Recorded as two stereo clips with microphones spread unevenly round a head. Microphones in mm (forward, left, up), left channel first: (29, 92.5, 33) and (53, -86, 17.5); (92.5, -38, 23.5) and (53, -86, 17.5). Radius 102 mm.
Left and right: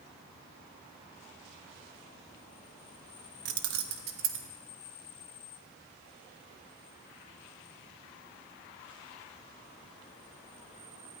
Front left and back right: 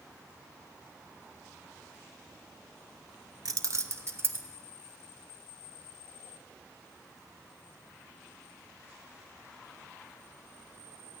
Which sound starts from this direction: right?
Keys jangling, at 3.5 s.